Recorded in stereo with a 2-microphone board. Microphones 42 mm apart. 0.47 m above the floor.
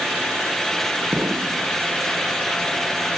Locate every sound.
1.1 s an explosion: 60° right (ahead or behind)